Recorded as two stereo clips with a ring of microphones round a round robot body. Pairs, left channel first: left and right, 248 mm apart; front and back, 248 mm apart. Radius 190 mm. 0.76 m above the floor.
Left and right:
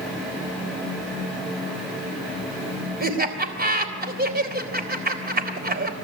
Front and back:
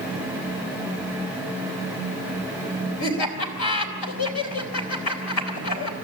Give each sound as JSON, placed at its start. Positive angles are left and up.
{"t": 3.0, "sound": "laughter", "azimuth_deg": -40, "distance_m": 3.5}